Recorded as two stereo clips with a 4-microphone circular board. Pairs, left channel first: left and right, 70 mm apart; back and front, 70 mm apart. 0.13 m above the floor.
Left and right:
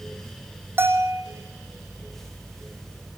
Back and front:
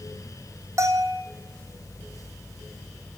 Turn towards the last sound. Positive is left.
turn(degrees=-35)